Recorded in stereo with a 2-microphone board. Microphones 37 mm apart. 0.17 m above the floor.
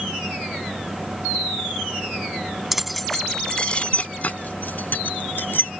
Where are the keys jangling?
10° right (ahead or behind); by 5.7 s 65° left (ahead or behind).